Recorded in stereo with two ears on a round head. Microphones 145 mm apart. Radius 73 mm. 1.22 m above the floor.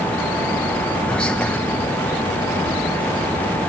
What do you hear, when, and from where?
1.1 s whispering: 5° left (ahead or behind), 0.7 m